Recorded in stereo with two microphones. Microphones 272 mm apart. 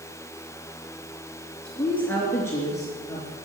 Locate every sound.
1.6 s a woman speaking: 5° left (ahead or behind), 3.5 m; by 3.4 s 15° left (ahead or behind), 4 m